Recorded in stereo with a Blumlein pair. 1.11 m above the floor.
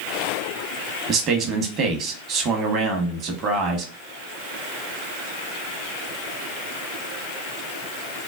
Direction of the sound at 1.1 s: 30° right.